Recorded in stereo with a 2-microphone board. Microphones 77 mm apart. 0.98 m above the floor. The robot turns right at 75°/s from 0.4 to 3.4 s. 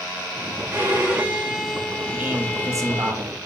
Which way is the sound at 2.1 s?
160° right.